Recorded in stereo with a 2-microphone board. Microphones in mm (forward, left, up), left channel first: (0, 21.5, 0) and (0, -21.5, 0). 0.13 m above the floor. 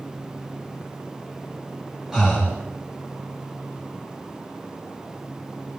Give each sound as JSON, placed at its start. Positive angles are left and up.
{"t": 2.1, "sound": "breathing", "side_deg": -10, "distance_m": 6.5}